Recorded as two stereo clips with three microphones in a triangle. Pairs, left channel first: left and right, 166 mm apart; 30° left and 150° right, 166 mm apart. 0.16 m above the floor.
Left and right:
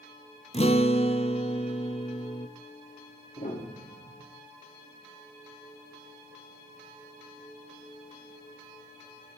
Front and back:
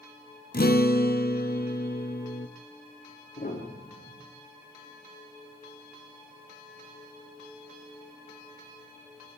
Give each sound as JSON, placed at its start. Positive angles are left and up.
{"t": 0.5, "sound": "a guitar", "azimuth_deg": 40, "distance_m": 1.6}
{"t": 3.4, "sound": "a piano", "azimuth_deg": 60, "distance_m": 9.5}